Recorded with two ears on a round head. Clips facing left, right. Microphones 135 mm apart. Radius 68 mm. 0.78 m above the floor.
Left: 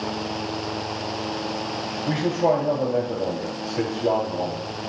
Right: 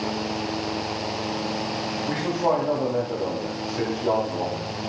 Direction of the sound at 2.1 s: 45° left (ahead or behind).